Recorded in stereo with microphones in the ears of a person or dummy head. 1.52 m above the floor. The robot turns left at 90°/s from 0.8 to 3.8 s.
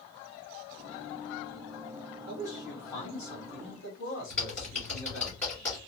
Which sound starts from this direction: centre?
Typing on a keyboard, at 4.3 s.